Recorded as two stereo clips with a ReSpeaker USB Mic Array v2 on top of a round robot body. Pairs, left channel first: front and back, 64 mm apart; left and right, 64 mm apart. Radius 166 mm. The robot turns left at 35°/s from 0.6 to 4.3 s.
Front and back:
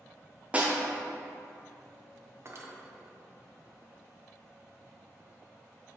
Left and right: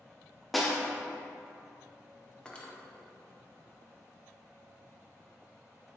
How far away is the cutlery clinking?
About 0.7 m.